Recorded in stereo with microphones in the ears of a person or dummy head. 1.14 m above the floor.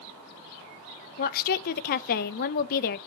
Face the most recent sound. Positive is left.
turn(degrees=45)  # may be behind; listen again after turning